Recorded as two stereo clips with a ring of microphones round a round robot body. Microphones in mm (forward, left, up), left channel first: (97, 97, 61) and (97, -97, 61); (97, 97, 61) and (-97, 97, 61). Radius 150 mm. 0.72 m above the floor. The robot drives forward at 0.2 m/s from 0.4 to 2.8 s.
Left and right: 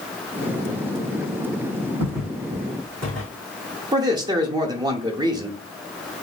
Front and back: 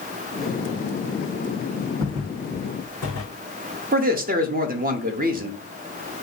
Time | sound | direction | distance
2.0 | footsteps | 105° right | 2 m
3.9 | a man speaking | 155° right | 0.6 m